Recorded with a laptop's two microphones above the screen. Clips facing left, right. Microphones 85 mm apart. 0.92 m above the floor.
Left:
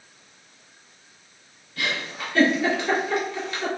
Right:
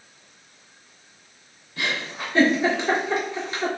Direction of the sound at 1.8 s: 25° right (ahead or behind).